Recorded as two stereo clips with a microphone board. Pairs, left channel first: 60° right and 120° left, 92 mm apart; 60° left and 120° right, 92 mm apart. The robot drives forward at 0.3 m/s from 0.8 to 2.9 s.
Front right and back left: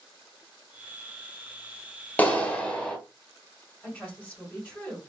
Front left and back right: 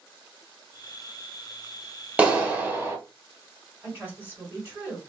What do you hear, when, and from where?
2.2 s a clap: 70° right, 0.7 m; by 3.0 s 120° right, 0.7 m
3.8 s a woman speaking: 105° right, 1.5 m